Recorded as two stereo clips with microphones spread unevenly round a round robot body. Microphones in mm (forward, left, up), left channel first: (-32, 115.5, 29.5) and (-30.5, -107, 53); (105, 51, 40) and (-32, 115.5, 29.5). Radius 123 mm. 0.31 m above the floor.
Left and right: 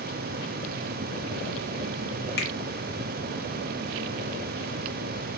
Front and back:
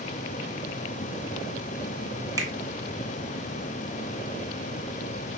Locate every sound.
2.4 s a finger snap: 95° left, 0.9 m